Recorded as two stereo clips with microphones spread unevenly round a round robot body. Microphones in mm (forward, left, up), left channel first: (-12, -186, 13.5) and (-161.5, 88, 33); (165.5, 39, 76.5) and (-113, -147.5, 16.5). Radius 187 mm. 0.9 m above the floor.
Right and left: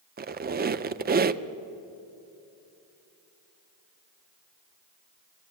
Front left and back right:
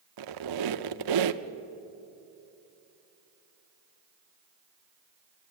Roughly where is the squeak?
Behind.